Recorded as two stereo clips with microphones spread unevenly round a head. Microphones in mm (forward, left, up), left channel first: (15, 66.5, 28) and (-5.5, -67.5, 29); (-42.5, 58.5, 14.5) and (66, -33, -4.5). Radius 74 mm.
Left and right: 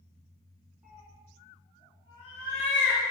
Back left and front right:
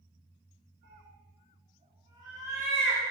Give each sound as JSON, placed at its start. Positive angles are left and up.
{"t": 0.8, "sound": "a cat meowing", "azimuth_deg": -10, "distance_m": 2.5}